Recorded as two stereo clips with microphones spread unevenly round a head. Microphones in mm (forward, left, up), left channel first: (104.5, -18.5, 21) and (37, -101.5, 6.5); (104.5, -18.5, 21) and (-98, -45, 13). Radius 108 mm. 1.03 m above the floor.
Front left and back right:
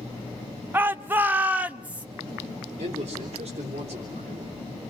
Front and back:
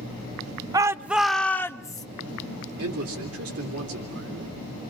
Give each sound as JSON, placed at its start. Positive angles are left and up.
{"t": 0.7, "sound": "a shout", "azimuth_deg": -130, "distance_m": 0.6}
{"t": 2.8, "sound": "a man speaking", "azimuth_deg": -175, "distance_m": 3.5}